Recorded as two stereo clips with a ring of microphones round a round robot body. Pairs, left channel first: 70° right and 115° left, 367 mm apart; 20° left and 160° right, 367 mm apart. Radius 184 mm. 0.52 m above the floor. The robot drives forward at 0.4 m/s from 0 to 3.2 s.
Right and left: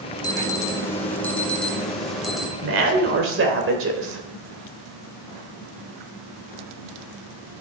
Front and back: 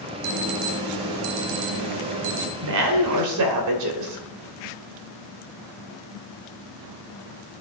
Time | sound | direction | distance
0.2 | an alarm | 145° right | 1.8 m
2.6 | a woman speaking | 165° left | 2.5 m